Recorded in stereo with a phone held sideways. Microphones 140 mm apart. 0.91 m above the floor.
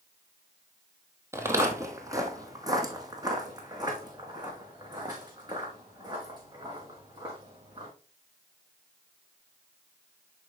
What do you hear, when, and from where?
1.3 s footsteps: 20° right (ahead or behind), 1.3 m; by 7.9 s 30° right (ahead or behind), 5 m